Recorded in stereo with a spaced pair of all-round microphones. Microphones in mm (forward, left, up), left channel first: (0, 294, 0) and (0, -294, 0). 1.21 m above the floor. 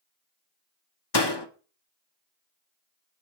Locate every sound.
1.1 s a door slam: 40° left (ahead or behind), 1.7 m